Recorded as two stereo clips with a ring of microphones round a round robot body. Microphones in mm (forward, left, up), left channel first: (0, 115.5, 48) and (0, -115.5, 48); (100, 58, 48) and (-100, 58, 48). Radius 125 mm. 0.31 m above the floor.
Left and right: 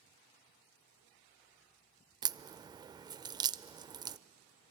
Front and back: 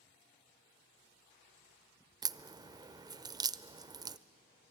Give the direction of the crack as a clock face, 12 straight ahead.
5 o'clock.